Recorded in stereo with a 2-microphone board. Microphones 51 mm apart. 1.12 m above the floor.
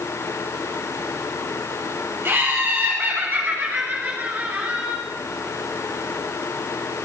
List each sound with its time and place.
2.2 s laughter: 40° right (ahead or behind), 7.5 m; by 5.0 s 25° right (ahead or behind), 6 m